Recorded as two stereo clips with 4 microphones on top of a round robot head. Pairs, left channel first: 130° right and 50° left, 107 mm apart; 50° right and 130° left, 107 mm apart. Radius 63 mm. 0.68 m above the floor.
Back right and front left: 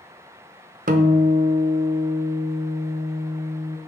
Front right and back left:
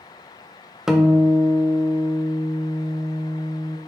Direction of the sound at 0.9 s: 45° left.